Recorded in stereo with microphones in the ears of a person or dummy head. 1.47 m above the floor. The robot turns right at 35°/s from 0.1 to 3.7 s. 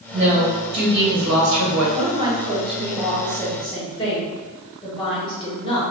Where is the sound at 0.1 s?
155° right, 1.3 m; by 1.9 s 95° right, 1.3 m.